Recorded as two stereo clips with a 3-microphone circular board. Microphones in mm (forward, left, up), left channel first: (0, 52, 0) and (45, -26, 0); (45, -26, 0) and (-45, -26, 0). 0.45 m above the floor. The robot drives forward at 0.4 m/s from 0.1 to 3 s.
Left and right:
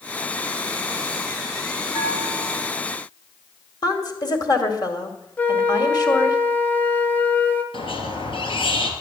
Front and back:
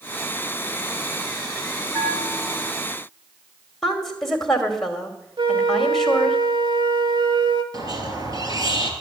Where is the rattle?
I don't hear a rattle.